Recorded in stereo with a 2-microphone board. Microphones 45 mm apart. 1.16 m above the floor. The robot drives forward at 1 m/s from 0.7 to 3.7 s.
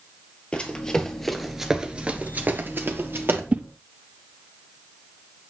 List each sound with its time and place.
0.5 s running footsteps: 25° left (ahead or behind), 1.8 m; by 3.4 s 55° right (ahead or behind), 2 m
3.5 s a whoosh: 35° right (ahead or behind), 0.6 m; by 3.6 s 40° right (ahead or behind), 0.5 m